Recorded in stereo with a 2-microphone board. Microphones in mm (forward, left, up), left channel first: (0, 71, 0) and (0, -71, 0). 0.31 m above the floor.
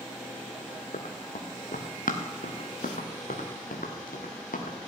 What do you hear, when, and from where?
0.9 s running footsteps: 65° left (ahead or behind), 2 m; by 4.9 s 75° left (ahead or behind), 3.5 m